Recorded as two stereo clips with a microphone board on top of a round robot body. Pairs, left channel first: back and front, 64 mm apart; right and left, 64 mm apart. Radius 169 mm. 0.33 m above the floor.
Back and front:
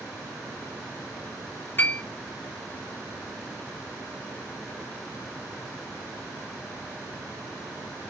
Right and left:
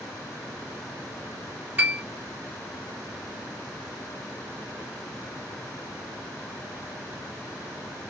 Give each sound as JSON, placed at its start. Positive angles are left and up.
{"t": 1.8, "sound": "a piano", "azimuth_deg": 140, "distance_m": 1.1}